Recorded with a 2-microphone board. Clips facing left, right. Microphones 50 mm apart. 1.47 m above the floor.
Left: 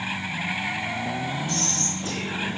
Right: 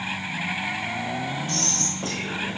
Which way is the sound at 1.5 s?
50° right (ahead or behind).